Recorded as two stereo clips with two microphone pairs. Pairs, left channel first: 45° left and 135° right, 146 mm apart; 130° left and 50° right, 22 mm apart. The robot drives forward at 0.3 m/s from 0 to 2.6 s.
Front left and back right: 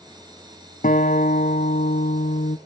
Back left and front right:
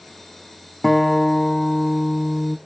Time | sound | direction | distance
0.8 | a guitar | 50° left | 1.5 m